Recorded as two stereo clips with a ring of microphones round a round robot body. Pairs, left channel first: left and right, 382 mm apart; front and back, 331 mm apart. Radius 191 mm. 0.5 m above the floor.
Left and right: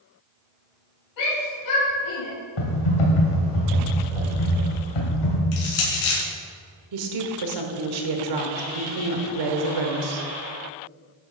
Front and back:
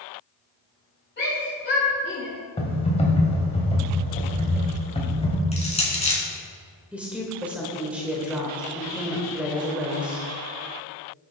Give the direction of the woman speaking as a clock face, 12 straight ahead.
3 o'clock.